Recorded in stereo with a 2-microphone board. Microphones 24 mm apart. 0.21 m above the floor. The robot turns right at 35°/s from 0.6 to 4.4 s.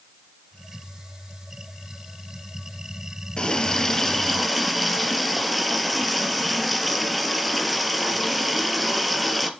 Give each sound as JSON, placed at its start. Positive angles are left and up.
{"t": 3.4, "sound": "a running tap", "azimuth_deg": 140, "distance_m": 2.5}